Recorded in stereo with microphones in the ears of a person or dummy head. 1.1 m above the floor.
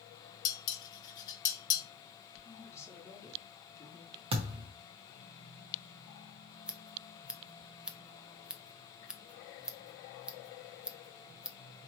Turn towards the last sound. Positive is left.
turn(degrees=-10)  # may be behind; listen again after turning